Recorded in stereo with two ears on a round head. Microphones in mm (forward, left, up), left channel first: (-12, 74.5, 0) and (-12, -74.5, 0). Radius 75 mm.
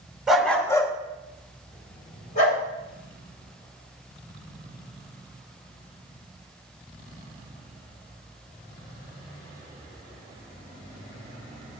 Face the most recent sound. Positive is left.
turn(degrees=40)  # may be behind; listen again after turning